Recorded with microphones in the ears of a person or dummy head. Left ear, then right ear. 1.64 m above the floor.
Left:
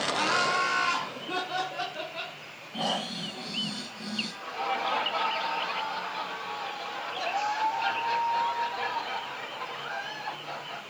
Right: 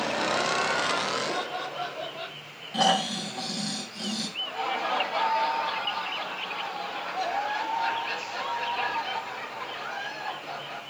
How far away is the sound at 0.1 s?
About 2.5 m.